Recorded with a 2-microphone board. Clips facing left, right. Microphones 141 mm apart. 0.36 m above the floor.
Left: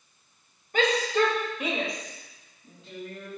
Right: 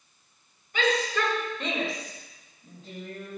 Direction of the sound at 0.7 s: 50° left (ahead or behind).